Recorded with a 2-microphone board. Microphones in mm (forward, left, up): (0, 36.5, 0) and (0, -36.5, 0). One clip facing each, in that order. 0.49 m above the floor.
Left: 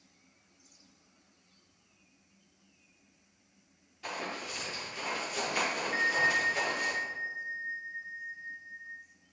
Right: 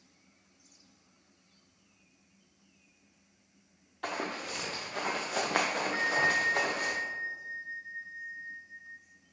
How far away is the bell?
About 0.6 m.